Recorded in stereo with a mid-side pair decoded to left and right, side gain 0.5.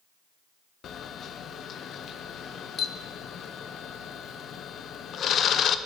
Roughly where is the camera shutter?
Ahead left.